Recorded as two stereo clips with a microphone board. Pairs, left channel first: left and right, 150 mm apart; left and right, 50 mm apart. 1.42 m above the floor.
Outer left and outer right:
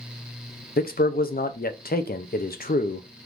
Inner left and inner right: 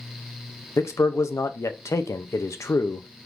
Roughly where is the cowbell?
I don't hear a cowbell.